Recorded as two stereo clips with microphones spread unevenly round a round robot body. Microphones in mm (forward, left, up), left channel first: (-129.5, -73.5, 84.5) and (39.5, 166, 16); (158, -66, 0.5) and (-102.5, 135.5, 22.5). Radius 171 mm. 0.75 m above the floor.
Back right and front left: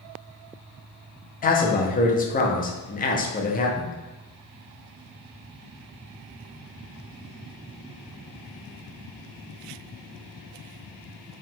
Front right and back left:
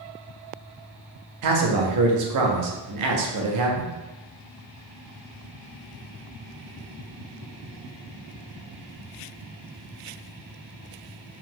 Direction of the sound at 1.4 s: 170° left.